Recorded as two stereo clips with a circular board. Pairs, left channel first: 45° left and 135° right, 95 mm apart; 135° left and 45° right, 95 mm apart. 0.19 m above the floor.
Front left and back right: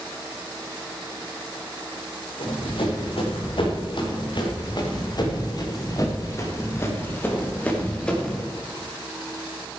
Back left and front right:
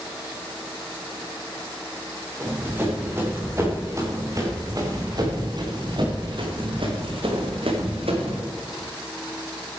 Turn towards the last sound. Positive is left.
turn(degrees=-40)